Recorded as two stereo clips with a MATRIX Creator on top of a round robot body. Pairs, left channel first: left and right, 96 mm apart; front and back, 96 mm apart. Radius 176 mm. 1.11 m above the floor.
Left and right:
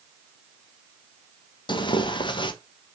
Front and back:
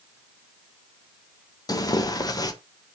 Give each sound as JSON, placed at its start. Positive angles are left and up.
{"t": 1.7, "sound": "tearing paper", "azimuth_deg": 50, "distance_m": 1.1}